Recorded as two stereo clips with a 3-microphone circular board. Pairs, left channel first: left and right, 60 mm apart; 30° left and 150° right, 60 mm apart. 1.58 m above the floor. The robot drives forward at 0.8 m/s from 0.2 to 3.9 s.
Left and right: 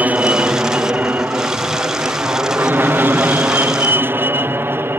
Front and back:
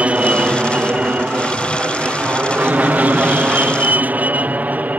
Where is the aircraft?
110° right; by 5.0 s 105° right.